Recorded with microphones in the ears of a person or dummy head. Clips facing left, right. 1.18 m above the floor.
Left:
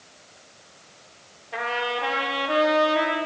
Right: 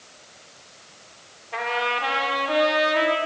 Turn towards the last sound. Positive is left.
turn(degrees=5)  # may be behind; listen again after turning